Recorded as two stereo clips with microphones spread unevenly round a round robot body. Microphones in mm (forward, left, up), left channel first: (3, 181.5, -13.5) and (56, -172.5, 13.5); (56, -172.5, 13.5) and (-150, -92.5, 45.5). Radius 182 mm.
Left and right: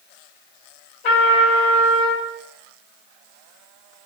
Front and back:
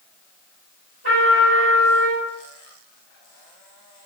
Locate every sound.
1.0 s a trumpet: 100° left, 2.5 m